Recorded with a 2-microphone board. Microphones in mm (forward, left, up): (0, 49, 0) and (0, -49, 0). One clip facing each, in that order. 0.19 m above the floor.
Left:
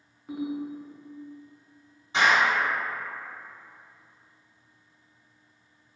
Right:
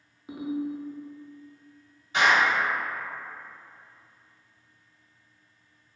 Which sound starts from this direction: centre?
A ringtone, at 0.3 s.